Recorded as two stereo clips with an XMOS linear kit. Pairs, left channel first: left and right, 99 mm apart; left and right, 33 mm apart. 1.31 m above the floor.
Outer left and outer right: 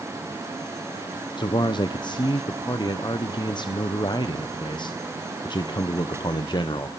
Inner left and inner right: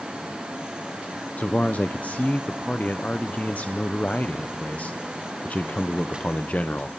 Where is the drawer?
No drawer in this recording.